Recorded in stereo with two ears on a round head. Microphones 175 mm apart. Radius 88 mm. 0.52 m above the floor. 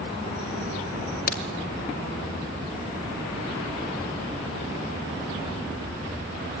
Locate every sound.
1.3 s a crack: 50° left (ahead or behind), 2 m